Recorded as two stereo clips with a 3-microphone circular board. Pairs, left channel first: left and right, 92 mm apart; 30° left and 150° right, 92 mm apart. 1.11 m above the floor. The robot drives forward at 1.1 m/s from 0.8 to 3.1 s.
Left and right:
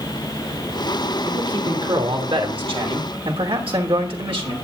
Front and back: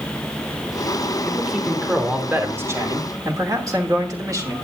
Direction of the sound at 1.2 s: 60° right.